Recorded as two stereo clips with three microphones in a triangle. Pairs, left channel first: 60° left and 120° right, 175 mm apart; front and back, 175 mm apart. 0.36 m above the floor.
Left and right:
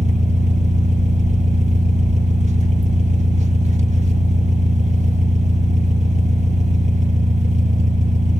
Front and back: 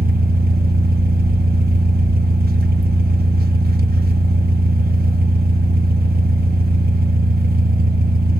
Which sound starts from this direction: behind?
An engine running, at 0.0 s.